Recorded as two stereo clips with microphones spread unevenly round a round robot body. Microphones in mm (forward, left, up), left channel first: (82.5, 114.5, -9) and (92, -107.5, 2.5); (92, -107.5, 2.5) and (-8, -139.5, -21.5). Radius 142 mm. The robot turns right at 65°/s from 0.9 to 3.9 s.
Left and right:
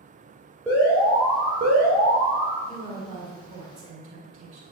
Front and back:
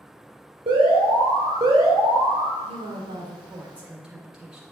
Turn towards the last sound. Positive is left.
turn(degrees=-90)